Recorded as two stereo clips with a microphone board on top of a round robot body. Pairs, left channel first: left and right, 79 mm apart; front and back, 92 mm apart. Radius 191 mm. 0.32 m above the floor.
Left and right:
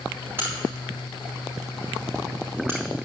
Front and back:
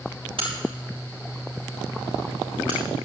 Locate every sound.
0.4 s a crack: 155° right, 6.5 m